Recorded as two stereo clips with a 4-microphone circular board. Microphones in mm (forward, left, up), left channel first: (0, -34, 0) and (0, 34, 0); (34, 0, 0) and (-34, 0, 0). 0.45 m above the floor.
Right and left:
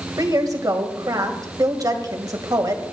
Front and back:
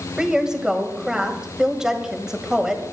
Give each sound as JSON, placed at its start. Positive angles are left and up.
{"t": 0.2, "sound": "a woman speaking", "azimuth_deg": 100, "distance_m": 1.8}